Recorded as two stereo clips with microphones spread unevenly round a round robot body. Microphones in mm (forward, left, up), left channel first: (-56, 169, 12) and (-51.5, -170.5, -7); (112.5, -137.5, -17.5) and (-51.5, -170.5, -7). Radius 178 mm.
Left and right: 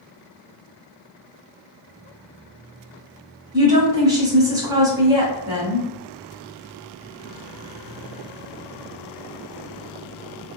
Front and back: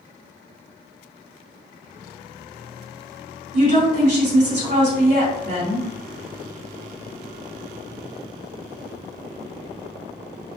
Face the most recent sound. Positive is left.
turn(degrees=-165)